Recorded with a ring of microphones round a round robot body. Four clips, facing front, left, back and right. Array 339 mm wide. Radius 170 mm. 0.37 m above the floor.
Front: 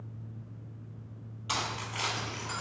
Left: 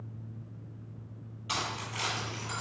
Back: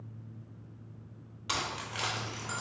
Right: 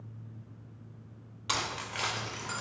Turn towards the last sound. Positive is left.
turn(degrees=-140)